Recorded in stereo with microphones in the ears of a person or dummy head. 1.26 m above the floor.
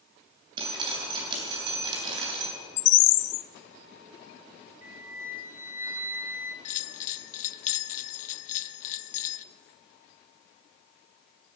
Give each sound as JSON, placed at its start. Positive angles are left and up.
{"t": 0.6, "sound": "dripping", "side_deg": -30, "distance_m": 3.0}
{"t": 2.8, "sound": "a bird", "side_deg": 70, "distance_m": 0.6}
{"t": 4.8, "sound": "a flute", "side_deg": -15, "distance_m": 0.8}
{"t": 6.7, "sound": "a bell", "side_deg": 40, "distance_m": 0.7}